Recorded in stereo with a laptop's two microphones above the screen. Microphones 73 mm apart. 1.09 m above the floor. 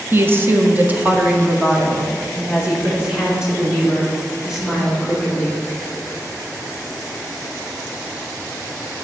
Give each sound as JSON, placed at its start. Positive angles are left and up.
{"t": 0.1, "sound": "a woman speaking", "side_deg": -35, "distance_m": 1.0}